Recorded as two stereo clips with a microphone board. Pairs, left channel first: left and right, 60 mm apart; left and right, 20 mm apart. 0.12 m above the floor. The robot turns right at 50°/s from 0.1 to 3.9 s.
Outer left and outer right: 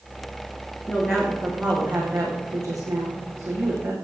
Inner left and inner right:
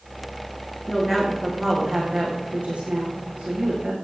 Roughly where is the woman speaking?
Behind left.